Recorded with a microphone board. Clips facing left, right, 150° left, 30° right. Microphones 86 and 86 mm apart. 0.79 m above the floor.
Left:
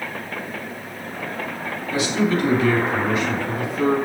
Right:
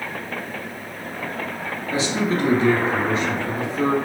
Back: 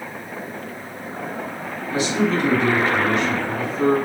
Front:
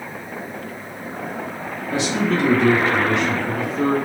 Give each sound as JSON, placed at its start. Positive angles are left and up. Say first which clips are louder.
{"t": 1.9, "sound": "a man speaking", "louder": "left 2 dB, even", "azimuth_deg": -35, "distance_m": 1.9}